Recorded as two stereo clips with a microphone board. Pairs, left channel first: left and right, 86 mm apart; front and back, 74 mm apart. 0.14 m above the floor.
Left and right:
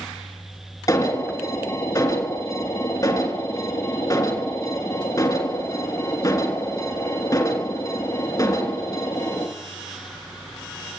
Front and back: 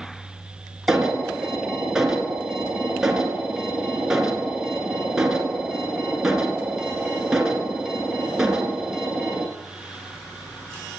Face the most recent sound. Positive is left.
turn(degrees=100)